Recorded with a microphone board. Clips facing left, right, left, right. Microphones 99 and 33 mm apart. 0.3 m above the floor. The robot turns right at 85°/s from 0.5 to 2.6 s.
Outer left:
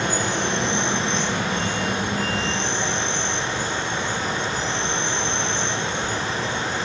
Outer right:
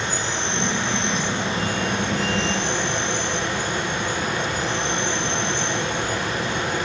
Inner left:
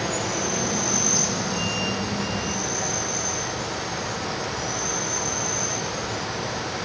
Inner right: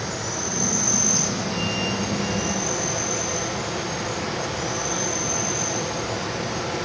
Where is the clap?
No clap in this recording.